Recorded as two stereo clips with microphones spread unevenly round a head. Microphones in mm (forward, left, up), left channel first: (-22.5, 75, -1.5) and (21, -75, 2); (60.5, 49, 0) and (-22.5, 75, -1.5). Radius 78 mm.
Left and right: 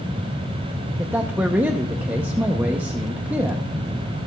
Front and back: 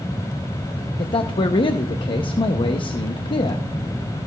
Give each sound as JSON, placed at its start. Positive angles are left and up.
{"t": 1.0, "sound": "a man speaking", "azimuth_deg": 5, "distance_m": 0.8}